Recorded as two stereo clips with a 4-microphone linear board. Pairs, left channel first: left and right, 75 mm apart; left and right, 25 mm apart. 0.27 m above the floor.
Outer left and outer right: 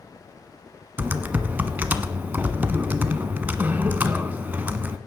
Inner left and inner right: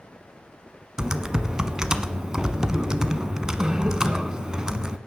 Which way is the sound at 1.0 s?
25° right (ahead or behind).